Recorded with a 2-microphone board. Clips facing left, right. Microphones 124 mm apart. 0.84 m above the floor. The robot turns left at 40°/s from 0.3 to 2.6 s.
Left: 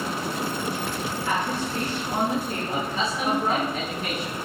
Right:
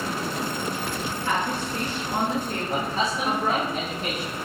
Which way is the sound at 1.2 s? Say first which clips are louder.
Right 1 dB; 155° right.